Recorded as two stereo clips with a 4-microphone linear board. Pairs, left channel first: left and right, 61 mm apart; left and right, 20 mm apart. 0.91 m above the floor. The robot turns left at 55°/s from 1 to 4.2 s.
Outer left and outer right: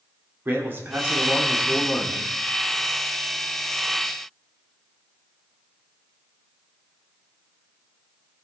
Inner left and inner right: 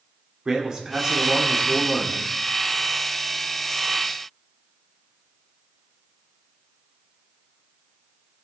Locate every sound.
0.5 s a man speaking: 140° right, 2 m; by 2.3 s 145° left, 2 m